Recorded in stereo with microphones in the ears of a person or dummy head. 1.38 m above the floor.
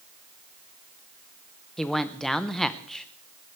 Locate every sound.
1.8 s a man speaking: 5° left (ahead or behind), 0.6 m